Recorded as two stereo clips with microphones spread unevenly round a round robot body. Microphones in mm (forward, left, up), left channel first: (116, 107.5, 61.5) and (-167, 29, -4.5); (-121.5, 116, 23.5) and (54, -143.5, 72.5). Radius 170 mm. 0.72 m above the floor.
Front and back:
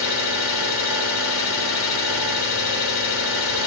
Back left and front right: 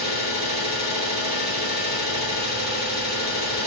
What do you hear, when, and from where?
0.0 s an engine running: 65° left, 1.0 m